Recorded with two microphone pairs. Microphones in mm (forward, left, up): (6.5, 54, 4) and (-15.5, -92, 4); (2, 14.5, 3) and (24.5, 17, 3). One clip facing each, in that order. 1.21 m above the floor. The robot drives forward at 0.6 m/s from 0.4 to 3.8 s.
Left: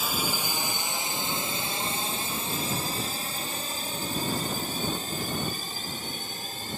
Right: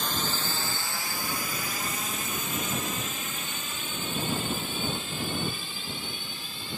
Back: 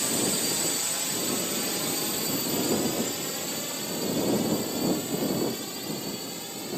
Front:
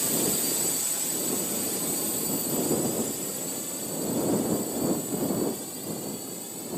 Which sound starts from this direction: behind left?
A drone, at 0.0 s.